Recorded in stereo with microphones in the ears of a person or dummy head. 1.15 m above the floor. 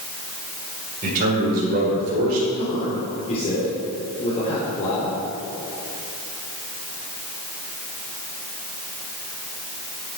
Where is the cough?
No cough in this recording.